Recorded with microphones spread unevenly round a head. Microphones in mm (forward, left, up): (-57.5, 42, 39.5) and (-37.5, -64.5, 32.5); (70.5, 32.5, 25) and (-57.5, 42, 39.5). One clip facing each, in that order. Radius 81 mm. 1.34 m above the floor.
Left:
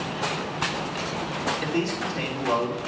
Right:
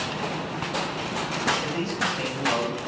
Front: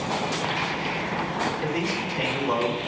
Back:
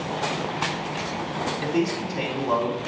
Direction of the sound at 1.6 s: 125° left.